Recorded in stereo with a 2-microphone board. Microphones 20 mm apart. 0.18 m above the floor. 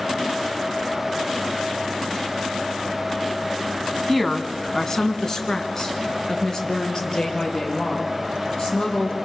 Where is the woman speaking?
10° left (ahead or behind), 1.1 m; by 9.2 s 35° left (ahead or behind), 5.5 m.